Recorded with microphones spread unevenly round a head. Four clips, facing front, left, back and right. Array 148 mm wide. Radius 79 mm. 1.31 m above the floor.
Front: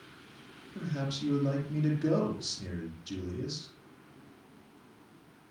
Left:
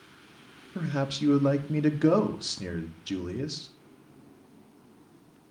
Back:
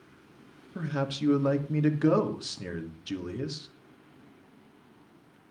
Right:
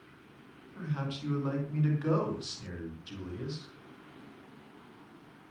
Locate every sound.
0.8 s a man speaking: 120° left, 2.5 m